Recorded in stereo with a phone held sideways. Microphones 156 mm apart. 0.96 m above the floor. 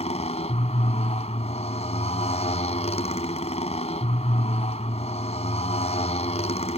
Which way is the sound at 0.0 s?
45° left (ahead or behind).